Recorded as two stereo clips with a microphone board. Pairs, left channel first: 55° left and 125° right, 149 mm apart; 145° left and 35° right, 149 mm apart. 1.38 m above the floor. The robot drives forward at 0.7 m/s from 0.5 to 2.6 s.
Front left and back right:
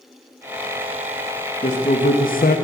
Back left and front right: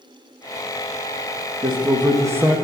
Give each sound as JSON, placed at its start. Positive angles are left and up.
{"t": 1.6, "sound": "a man speaking", "azimuth_deg": 20, "distance_m": 1.1}